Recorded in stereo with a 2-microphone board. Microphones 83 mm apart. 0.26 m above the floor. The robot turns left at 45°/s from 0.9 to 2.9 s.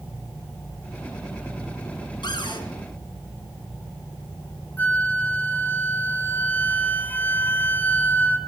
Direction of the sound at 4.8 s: 25° left (ahead or behind).